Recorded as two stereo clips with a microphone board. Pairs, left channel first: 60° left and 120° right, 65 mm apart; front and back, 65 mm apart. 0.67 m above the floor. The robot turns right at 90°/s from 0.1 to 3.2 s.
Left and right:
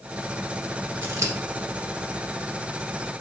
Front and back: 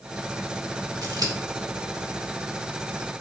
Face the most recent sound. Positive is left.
turn(degrees=15)